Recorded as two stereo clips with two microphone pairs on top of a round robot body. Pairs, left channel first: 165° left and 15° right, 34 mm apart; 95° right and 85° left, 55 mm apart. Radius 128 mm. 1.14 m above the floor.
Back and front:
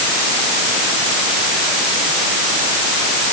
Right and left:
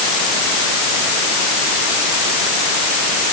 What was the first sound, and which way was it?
Only background noise.